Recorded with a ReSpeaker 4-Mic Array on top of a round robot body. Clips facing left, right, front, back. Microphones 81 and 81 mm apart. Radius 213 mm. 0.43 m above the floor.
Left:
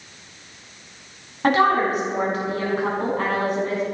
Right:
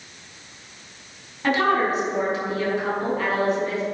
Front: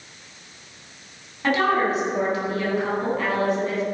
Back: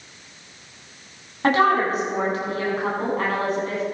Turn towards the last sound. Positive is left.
turn(degrees=135)